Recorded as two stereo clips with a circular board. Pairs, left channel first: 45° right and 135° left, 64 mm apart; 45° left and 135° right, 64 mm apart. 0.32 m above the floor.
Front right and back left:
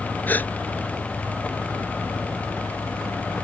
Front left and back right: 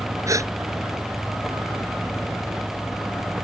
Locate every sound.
0.3 s a gasp: 105° right